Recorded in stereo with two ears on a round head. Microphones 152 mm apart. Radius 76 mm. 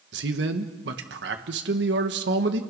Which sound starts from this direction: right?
A man speaking, at 0.1 s.